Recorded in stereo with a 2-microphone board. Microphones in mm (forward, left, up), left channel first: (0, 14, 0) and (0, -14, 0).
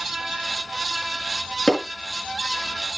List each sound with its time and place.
1.7 s hammering: 25° left (ahead or behind), 4.5 m